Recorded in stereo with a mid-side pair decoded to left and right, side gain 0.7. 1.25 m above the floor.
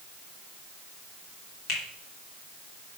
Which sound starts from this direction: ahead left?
A finger snap, at 1.7 s.